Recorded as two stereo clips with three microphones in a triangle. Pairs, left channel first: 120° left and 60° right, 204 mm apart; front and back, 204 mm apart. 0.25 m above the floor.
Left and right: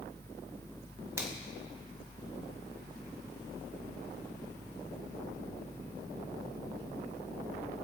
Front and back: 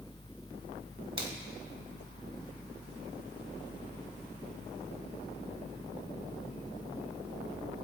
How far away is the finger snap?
About 1.8 m.